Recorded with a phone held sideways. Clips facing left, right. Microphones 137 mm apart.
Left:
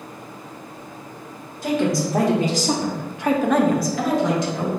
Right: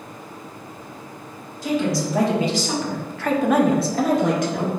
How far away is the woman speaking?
About 1.5 m.